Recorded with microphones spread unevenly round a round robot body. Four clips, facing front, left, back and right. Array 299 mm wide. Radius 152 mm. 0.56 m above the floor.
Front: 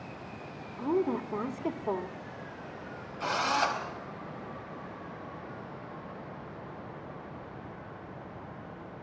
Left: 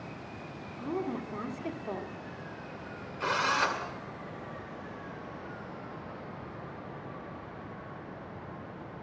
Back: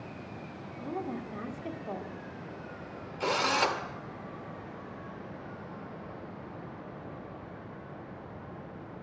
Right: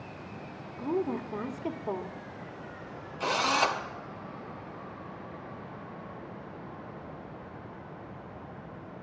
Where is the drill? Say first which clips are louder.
Right 2 dB, back 1 dB; 170° right, 2 m.